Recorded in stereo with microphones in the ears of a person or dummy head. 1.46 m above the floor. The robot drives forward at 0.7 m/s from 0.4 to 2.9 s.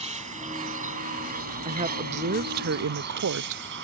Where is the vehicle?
30° right (ahead or behind); by 3.8 s 60° right (ahead or behind).